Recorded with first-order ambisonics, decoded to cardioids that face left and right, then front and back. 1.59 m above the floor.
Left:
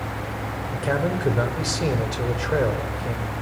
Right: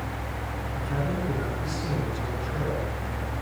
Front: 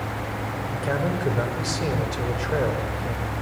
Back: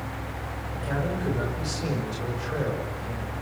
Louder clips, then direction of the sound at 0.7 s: Left 8 dB, front 4 dB; 65° left.